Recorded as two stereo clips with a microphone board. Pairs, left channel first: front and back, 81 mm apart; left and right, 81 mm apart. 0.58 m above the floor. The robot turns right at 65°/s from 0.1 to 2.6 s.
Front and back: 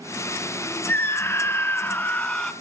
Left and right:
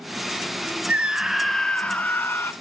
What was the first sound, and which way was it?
A scream, 35° right.